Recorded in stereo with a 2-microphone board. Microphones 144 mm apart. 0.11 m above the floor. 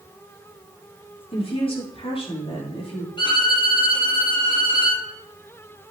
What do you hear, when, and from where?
1.3 s a woman speaking: 40° left (ahead or behind), 4 m
3.2 s a violin: 30° left (ahead or behind), 3 m